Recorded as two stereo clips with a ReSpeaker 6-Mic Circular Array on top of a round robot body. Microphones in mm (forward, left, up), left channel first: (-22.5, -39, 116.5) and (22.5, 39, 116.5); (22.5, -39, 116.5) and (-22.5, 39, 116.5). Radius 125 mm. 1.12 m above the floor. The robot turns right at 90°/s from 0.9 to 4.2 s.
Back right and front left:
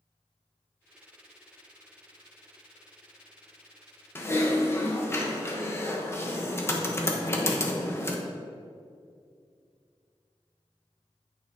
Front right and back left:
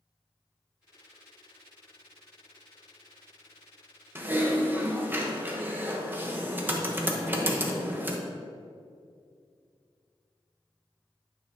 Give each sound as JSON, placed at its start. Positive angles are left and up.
{"t": 4.2, "sound": "typing on a keyboard", "azimuth_deg": 180, "distance_m": 1.1}